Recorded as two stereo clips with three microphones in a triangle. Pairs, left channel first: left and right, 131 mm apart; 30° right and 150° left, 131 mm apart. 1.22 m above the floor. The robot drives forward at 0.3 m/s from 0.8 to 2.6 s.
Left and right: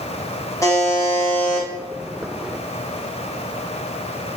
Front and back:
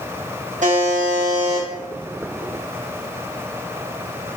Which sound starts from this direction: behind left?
A buzzer, at 0.6 s.